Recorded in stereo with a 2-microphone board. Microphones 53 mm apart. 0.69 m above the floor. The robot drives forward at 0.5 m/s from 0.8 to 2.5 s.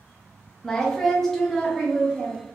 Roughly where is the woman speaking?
Centre.